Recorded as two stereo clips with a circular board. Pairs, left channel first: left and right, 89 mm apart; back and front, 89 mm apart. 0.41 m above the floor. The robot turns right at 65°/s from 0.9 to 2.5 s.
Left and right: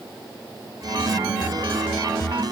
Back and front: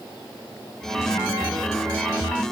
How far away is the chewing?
No chewing in this recording.